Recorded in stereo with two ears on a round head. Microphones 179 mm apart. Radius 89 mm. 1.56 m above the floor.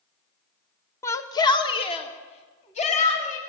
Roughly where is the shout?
Centre.